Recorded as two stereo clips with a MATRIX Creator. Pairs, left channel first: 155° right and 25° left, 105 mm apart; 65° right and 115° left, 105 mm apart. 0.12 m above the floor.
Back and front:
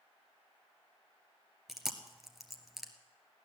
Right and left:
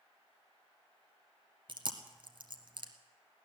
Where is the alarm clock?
I don't hear an alarm clock.